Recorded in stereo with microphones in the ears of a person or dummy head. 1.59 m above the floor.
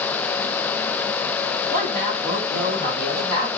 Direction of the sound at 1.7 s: 50° right (ahead or behind).